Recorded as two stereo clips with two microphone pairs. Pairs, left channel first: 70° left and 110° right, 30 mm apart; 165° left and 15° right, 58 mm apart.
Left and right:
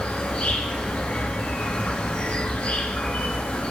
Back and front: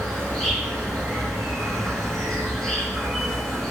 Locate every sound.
0.0 s an insect: 85° left, 4 m